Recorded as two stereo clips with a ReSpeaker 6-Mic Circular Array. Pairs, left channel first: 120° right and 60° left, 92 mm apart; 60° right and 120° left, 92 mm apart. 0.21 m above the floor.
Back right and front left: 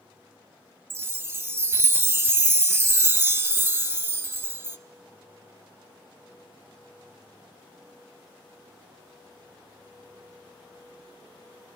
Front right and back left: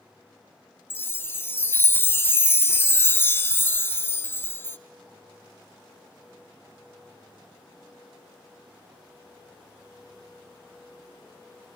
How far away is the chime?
About 0.5 m.